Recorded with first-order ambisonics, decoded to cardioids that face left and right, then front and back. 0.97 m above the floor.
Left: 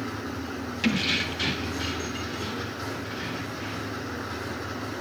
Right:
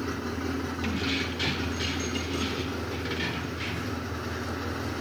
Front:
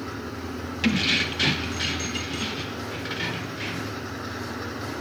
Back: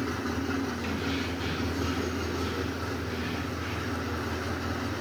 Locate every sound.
0.8 s keys jangling: 35° left, 0.8 m; by 4.0 s 35° right, 2.5 m